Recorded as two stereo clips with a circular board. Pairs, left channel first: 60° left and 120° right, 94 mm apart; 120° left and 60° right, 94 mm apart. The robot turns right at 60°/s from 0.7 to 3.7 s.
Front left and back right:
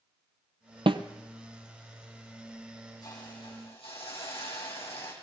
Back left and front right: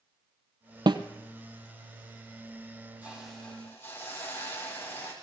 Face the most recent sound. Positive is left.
turn(degrees=50)